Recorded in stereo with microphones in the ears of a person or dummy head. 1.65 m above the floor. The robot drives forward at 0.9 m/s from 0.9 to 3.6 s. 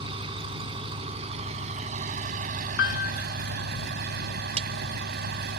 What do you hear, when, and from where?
0.0 s an engine running: 35° right (ahead or behind); by 5.6 s 55° right (ahead or behind)
2.8 s a piano: 60° left (ahead or behind)
4.6 s a clap: 40° right (ahead or behind)